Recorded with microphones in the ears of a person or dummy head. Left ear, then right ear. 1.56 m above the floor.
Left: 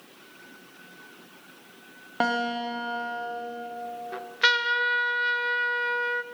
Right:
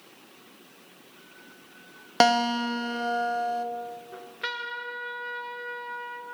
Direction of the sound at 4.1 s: 35° left (ahead or behind).